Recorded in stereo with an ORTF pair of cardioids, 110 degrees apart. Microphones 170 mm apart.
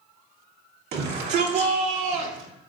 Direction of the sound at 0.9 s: 70° right.